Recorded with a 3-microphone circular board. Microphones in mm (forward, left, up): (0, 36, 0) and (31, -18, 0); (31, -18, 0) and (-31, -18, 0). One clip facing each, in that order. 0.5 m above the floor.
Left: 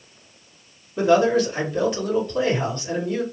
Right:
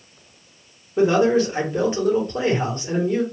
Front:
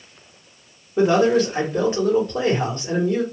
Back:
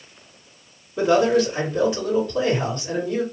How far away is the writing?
I don't hear writing.